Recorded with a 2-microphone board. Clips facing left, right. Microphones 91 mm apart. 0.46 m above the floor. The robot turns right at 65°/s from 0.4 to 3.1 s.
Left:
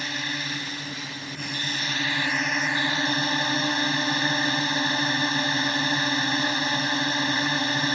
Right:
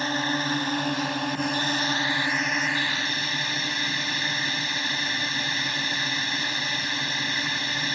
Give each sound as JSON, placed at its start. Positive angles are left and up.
{"t": 0.0, "sound": "a drone", "azimuth_deg": -135}